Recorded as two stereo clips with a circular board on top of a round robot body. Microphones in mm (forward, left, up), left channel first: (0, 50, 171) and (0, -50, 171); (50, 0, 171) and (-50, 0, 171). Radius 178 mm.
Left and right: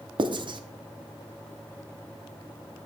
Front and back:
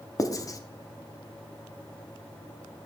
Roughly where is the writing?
Ahead right.